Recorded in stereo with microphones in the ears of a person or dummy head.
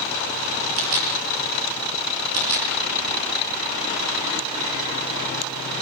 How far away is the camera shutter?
About 7.5 m.